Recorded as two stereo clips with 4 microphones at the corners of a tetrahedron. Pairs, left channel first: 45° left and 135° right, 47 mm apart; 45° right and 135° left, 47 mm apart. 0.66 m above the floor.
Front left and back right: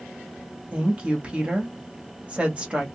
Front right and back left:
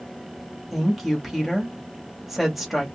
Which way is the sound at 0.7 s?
145° right.